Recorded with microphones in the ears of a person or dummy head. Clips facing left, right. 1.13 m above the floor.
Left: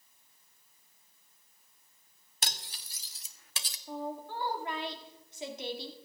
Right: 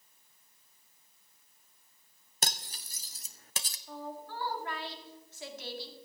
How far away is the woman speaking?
About 1.9 m.